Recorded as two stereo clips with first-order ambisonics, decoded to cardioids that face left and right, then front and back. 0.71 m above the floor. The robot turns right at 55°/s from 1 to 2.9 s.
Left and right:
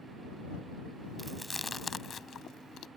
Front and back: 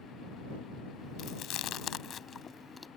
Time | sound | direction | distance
1.2 | chewing | 15° right | ?